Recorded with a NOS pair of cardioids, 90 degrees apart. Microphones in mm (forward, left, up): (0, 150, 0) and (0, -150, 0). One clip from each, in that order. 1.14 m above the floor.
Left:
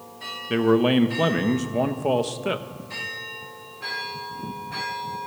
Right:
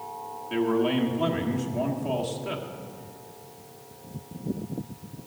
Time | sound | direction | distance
0.5 | a man speaking | 60° left | 1.1 m